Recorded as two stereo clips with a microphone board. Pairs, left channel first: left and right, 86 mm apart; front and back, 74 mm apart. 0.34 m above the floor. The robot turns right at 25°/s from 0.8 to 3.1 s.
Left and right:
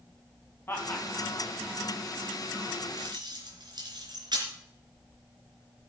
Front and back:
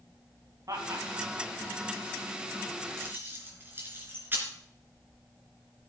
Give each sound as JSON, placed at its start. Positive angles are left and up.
{"t": 0.7, "sound": "laughter", "azimuth_deg": 150, "distance_m": 3.5}
{"t": 3.0, "sound": "keys jangling", "azimuth_deg": -120, "distance_m": 3.5}